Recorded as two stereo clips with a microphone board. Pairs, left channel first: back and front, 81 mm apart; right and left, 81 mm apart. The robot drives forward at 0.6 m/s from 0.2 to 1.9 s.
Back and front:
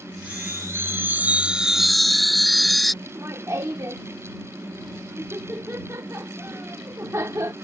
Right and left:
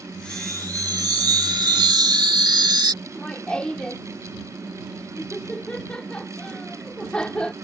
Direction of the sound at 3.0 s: 20° right.